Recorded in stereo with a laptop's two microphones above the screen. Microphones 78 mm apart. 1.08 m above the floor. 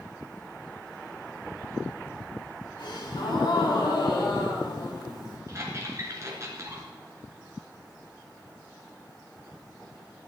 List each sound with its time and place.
2.8 s a gasp: 85° left, 4.5 m
5.5 s a squeak: 40° right (ahead or behind), 3 m